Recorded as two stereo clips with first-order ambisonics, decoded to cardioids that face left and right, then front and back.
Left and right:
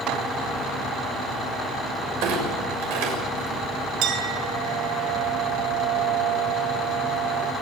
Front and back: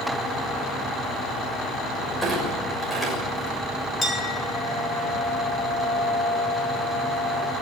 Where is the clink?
75° right, 5.5 m.